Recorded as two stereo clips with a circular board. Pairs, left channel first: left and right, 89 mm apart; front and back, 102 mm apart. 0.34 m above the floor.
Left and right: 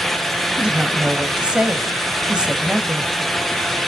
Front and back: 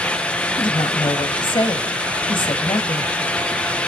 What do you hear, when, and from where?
0.6 s a woman speaking: 15° right, 1.5 m